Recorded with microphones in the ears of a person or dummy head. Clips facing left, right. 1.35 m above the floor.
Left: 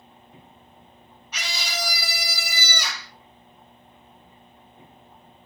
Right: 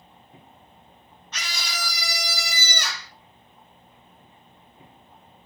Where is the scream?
10° left (ahead or behind), 2.5 m.